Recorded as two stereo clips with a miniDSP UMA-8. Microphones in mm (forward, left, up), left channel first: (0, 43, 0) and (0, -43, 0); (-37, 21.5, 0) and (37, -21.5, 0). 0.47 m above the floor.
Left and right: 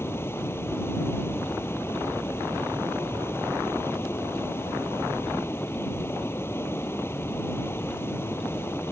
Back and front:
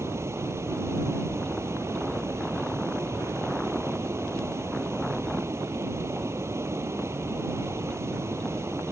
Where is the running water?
30° left.